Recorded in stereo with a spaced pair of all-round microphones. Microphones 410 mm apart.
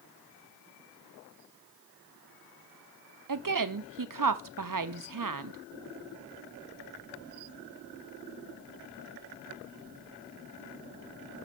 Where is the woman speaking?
55° right (ahead or behind), 0.5 m.